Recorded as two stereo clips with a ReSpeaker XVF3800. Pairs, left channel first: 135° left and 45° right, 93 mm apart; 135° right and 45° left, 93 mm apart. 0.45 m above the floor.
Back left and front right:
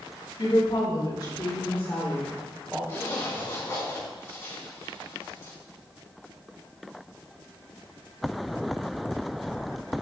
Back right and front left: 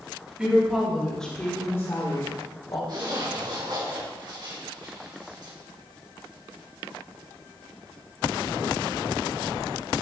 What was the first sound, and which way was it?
A woman speaking, 120° left.